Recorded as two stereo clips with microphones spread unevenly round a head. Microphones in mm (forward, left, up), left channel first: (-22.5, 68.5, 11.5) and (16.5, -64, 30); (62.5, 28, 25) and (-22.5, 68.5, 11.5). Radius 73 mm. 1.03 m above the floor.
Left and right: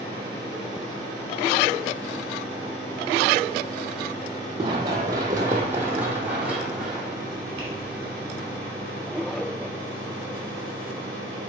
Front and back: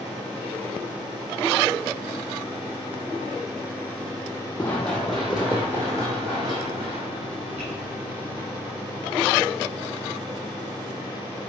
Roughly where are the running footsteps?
Right.